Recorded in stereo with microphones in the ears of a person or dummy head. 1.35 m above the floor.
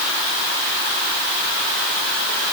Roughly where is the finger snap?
I don't hear a finger snap.